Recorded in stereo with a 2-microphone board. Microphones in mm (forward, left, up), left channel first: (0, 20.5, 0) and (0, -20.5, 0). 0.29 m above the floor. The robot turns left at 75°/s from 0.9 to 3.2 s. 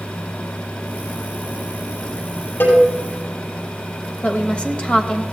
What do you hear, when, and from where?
2.6 s a cowbell: 80° left, 6 m; by 2.8 s 70° left (ahead or behind), 6 m
4.2 s a woman speaking: 25° left (ahead or behind), 1.0 m